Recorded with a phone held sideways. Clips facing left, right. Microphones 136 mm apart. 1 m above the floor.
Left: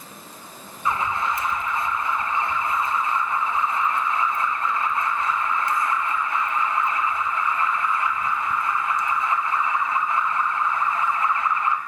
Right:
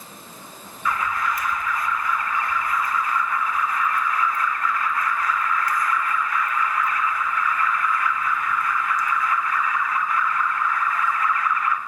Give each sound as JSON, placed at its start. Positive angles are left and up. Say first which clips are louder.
{"t": 0.8, "sound": "an alarm", "louder": "even", "side_deg": 25, "distance_m": 0.6}